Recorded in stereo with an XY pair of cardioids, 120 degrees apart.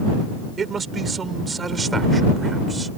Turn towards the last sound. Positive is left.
turn(degrees=-20)